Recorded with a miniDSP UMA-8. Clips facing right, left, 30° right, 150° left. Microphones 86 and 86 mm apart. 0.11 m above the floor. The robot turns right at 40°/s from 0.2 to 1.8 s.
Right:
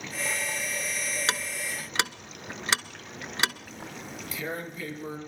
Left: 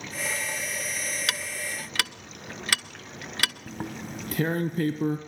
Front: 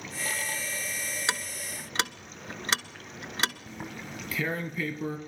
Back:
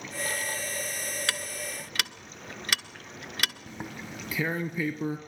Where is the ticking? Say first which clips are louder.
Right 1 dB, front 1 dB; 75° right, 0.6 m; by 3.5 s 55° right, 0.6 m.